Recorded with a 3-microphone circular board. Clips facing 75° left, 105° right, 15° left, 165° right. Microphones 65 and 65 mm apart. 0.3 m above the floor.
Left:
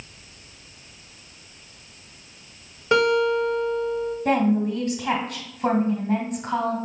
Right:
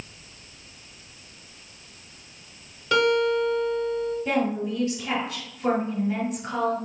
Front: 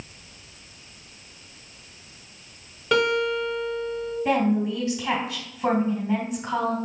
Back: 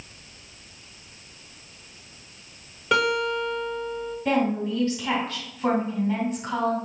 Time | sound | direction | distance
2.9 | a guitar | 110° left | 1.4 m
4.2 | a woman speaking | 90° left | 2.5 m